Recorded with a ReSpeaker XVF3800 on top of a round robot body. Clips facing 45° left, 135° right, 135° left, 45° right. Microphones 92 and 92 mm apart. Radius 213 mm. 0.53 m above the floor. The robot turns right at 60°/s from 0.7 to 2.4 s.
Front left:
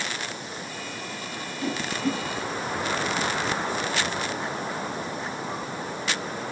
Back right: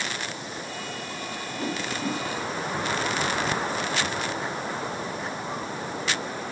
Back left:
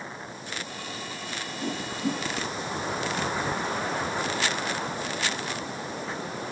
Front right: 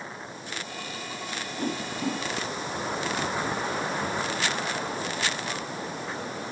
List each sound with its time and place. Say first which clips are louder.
1.6 s a whoosh: front left 2 dB, even; 85° right, 7.5 m; by 2.2 s 50° right, 7.5 m